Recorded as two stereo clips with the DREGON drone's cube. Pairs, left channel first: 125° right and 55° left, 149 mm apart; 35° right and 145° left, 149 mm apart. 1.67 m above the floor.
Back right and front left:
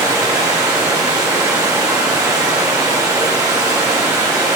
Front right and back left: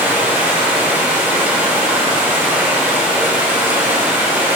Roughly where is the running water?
Left.